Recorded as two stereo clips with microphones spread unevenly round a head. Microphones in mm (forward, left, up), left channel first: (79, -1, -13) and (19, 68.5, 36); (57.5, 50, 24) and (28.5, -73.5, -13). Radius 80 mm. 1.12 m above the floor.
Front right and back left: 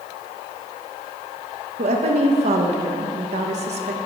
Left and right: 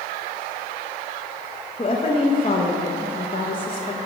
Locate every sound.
1.8 s a woman speaking: 135° left, 0.7 m